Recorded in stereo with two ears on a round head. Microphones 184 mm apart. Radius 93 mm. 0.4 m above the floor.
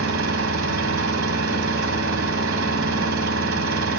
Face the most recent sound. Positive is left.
turn(degrees=-70)  # may be behind; listen again after turning